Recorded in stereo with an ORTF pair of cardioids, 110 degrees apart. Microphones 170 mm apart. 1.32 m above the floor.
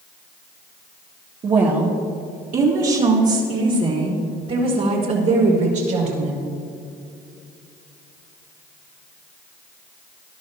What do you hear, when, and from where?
1.4 s a woman speaking: 40° right, 1.8 m; by 6.4 s 60° right, 5.5 m